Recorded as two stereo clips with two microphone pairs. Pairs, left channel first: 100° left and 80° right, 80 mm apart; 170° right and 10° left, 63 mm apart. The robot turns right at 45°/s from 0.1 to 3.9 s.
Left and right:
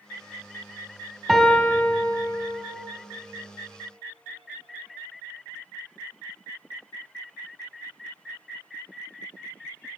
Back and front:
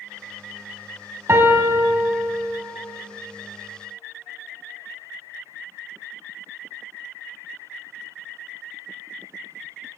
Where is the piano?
10° left, 0.5 m; by 2.6 s 70° left, 0.5 m.